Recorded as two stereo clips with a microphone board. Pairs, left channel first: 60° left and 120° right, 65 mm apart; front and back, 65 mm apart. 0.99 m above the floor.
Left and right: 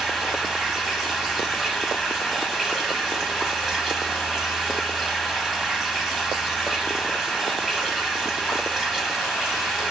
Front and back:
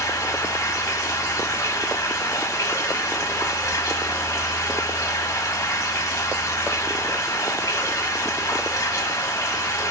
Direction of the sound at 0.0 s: 40° right.